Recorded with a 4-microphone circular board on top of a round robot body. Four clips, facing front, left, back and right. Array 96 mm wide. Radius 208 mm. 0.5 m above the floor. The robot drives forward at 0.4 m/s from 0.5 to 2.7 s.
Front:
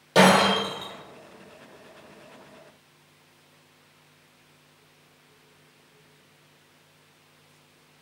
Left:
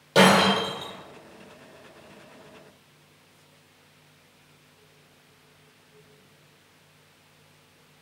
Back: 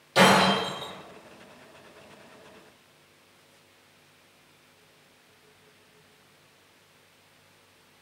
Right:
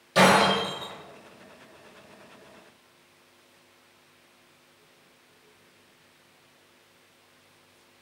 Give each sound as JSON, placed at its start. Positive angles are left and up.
{"t": 0.1, "sound": "breaking glass", "azimuth_deg": 40, "distance_m": 1.2}